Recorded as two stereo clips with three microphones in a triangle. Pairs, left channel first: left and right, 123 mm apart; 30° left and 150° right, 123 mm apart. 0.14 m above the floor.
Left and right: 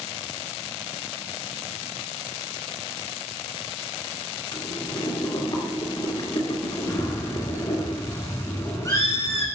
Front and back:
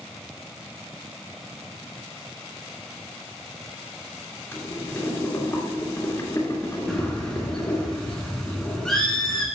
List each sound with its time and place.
4.5 s boiling: 85° left, 2 m
6.9 s a bird: 105° left, 1.5 m